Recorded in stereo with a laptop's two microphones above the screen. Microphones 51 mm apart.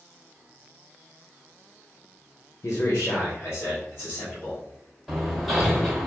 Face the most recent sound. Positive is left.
turn(degrees=-5)  # may be behind; listen again after turning